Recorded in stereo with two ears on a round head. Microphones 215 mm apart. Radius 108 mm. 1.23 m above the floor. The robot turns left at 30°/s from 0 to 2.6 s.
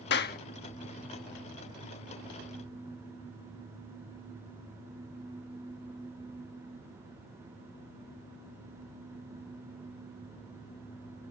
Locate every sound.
0.1 s a clap: 45° left (ahead or behind); by 0.4 s 40° left (ahead or behind)